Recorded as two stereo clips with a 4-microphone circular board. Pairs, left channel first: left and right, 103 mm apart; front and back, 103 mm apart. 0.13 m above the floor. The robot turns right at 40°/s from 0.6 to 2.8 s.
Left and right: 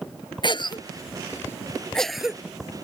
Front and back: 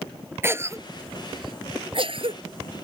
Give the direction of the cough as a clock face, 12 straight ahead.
8 o'clock.